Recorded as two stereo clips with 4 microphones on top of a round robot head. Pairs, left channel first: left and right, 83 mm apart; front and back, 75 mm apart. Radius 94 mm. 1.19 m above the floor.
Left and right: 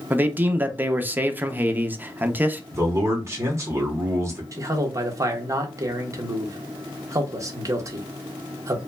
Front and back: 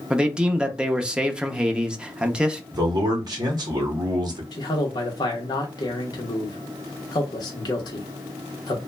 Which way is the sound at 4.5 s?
40° right.